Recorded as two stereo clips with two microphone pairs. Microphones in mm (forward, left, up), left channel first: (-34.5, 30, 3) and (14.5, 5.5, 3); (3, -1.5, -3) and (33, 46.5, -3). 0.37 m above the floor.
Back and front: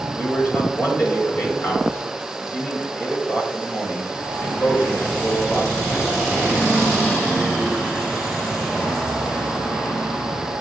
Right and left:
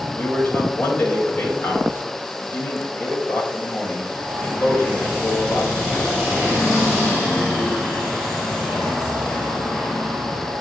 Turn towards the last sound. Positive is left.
turn(degrees=-165)